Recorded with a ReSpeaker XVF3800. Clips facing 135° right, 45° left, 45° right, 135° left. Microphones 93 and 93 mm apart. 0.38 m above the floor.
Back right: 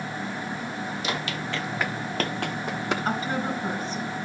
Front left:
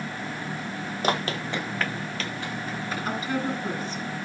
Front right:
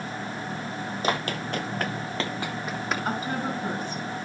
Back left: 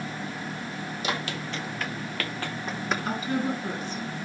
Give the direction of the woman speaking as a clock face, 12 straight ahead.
3 o'clock.